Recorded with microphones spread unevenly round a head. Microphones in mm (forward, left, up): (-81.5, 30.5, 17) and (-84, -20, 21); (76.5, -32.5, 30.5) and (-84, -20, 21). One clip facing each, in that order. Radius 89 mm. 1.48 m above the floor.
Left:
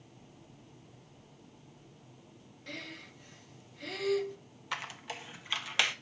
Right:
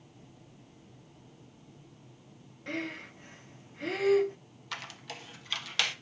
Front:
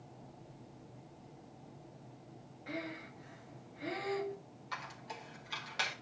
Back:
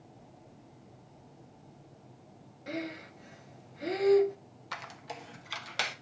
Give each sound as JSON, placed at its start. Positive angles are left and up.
{"t": 2.7, "sound": "breathing", "azimuth_deg": -150, "distance_m": 0.8}
{"t": 4.7, "sound": "a squeak", "azimuth_deg": 155, "distance_m": 0.9}